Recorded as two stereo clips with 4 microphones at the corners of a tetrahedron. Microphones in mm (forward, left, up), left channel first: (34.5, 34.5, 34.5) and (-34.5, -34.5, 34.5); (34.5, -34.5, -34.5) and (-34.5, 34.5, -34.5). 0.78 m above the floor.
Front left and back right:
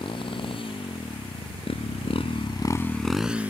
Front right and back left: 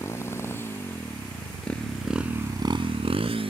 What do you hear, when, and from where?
0.0 s a motorcycle: 15° left; by 3.5 s 150° left